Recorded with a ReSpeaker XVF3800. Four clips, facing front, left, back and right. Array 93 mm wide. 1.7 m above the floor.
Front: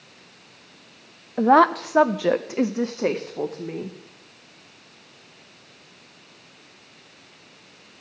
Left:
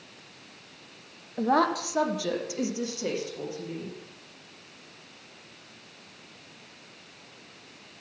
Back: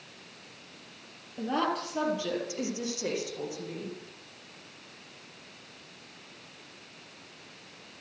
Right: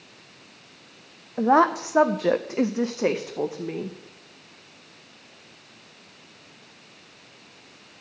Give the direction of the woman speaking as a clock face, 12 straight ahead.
12 o'clock.